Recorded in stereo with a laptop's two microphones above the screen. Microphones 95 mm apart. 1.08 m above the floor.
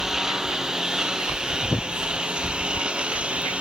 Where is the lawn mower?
5° right (ahead or behind); by 3.6 s 10° right (ahead or behind).